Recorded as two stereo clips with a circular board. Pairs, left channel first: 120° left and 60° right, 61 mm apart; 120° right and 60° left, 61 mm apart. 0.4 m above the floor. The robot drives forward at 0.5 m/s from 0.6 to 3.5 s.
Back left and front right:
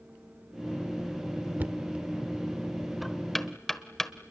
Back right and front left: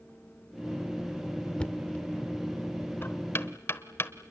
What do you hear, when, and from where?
1.6 s knocking: 70° right, 0.7 m; by 4.1 s 155° right, 1.1 m